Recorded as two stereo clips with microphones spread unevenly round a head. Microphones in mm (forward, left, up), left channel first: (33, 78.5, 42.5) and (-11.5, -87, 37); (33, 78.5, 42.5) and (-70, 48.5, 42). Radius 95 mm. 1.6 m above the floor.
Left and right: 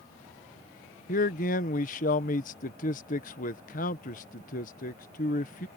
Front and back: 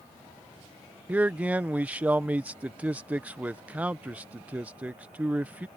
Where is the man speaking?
120° left.